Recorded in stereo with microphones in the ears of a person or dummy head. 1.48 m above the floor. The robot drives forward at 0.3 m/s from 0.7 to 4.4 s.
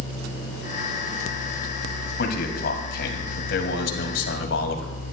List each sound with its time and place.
2.2 s a man speaking: 60° left (ahead or behind), 2.5 m; by 5.0 s 75° left (ahead or behind), 2 m